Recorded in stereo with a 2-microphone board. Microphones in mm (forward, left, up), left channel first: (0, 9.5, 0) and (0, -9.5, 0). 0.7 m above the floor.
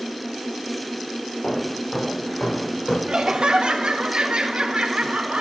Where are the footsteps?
70° left (ahead or behind), 8 m; by 3.0 s 60° left (ahead or behind), 9 m.